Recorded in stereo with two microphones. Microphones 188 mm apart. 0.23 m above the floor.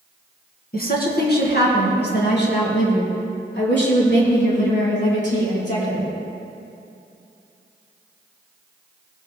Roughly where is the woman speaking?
Left.